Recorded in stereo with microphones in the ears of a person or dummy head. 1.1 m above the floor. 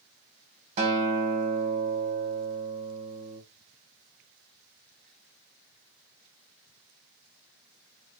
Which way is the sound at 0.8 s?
35° right (ahead or behind).